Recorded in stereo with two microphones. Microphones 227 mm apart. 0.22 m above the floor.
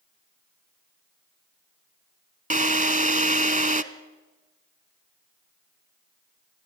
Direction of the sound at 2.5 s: 35° right (ahead or behind).